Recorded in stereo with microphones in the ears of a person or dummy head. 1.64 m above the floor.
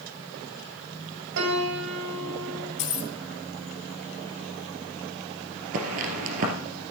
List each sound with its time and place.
1.4 s a piano: 65° right (ahead or behind), 2.5 m
2.8 s keys jangling: 40° left (ahead or behind), 2 m
5.7 s footsteps: 40° right (ahead or behind), 2 m